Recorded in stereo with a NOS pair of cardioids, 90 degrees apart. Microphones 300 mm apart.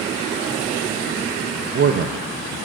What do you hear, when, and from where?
1.6 s a man speaking: 40° right, 0.6 m